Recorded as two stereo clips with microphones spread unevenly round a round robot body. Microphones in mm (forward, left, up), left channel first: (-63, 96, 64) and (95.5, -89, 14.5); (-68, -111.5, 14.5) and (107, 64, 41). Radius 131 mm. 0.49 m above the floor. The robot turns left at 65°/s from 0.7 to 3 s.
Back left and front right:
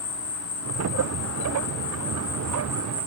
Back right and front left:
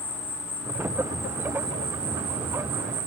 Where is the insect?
150° left, 1.0 m; by 3.1 s straight ahead, 1.0 m.